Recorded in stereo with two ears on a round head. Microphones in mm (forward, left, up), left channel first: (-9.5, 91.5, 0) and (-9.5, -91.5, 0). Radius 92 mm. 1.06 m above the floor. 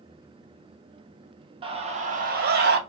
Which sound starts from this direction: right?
A scream, at 1.6 s.